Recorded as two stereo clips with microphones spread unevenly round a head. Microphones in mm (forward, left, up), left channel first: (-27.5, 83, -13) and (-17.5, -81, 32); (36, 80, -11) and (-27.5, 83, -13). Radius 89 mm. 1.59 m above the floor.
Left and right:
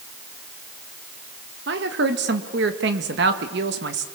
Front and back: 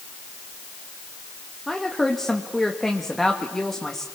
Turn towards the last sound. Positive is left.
turn(degrees=-90)